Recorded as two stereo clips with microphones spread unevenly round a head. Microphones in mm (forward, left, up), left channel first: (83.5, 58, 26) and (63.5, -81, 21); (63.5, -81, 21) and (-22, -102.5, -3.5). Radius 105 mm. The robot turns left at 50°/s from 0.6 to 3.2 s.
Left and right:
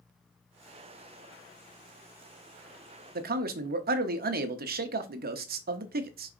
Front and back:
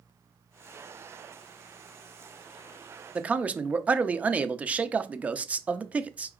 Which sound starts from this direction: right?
A man speaking, at 3.1 s.